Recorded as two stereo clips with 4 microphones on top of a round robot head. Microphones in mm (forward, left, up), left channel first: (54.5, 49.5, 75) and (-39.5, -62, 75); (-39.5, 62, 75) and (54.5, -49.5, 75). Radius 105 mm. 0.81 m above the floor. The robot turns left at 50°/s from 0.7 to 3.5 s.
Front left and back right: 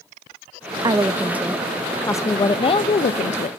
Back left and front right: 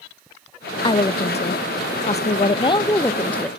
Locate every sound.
0.8 s a woman speaking: straight behind, 0.6 m; by 3.5 s 45° left, 0.6 m